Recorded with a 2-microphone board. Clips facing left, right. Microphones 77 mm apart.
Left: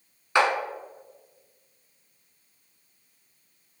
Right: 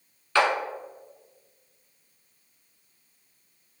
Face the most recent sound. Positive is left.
turn(degrees=20)  # may be behind; listen again after turning